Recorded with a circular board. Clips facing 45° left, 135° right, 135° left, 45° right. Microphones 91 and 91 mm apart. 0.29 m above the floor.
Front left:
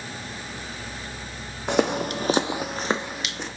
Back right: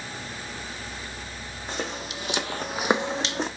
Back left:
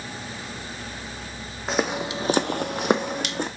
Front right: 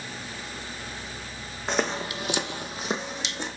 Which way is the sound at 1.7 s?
50° left.